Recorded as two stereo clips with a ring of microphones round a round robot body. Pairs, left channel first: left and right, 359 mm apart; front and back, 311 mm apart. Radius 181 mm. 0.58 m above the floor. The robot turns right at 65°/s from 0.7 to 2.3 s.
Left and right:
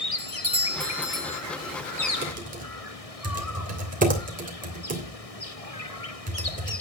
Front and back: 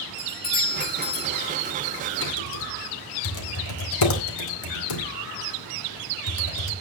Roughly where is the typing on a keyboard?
Ahead right.